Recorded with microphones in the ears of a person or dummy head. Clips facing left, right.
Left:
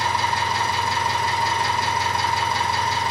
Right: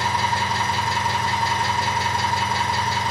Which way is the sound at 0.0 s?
70° left (ahead or behind).